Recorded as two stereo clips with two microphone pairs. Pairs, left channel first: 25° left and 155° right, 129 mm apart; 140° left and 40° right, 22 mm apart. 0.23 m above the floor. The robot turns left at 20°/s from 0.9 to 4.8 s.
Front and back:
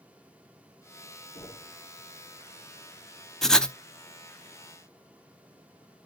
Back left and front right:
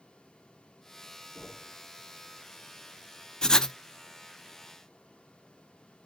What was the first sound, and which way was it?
Knocking, 60° left.